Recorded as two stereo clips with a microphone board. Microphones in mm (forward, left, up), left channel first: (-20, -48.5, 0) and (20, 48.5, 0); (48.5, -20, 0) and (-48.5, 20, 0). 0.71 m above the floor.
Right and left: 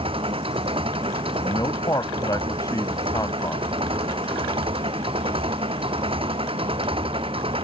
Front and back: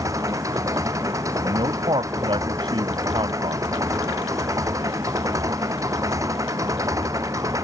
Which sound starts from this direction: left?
An engine running, at 0.0 s.